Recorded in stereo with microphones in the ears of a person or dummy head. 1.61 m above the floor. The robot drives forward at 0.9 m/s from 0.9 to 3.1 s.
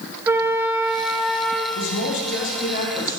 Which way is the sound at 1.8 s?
75° left (ahead or behind).